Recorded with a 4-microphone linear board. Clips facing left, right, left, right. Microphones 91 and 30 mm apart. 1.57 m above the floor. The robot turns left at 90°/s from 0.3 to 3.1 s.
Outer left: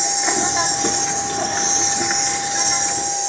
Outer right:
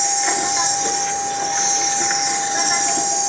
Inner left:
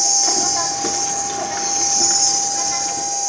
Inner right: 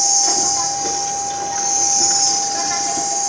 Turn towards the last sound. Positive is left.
turn(degrees=-85)